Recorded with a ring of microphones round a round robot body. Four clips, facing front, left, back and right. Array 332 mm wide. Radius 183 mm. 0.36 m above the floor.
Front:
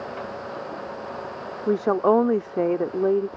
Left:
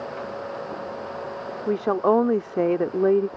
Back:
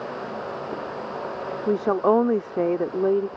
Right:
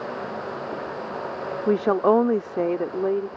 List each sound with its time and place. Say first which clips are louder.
1.7 s a woman speaking: right 2 dB, front 1 dB; 80° right; by 3.3 s 100° left